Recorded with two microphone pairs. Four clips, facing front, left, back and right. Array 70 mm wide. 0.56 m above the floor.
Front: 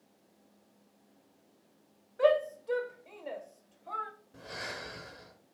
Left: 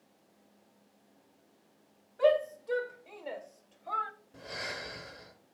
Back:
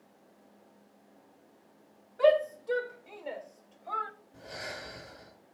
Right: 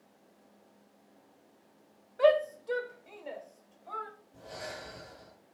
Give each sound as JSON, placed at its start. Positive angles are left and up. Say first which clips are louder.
{"t": 2.2, "sound": "a shout", "louder": "right 2 dB, back 2 dB", "azimuth_deg": -75, "distance_m": 0.9}
{"t": 4.3, "sound": "breathing", "louder": "left 2 dB, front 1 dB", "azimuth_deg": 50, "distance_m": 4.0}